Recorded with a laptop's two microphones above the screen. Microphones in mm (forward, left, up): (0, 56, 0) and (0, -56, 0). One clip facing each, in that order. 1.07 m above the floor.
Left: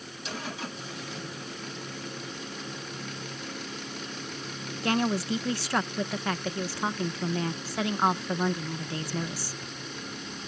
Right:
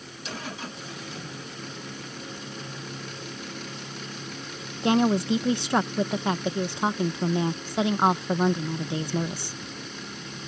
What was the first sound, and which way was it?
A woman speaking, 25° right (ahead or behind).